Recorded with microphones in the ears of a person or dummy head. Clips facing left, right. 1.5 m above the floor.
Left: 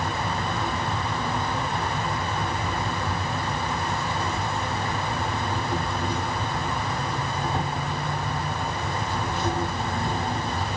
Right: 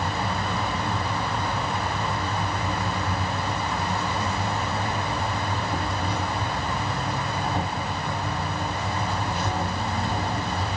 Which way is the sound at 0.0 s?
40° left (ahead or behind).